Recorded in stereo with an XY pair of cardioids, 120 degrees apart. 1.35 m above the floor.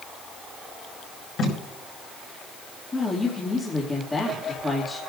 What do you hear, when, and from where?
1.4 s tape being pulled: 50° left, 5.5 m
2.9 s a woman speaking: 20° left, 2.5 m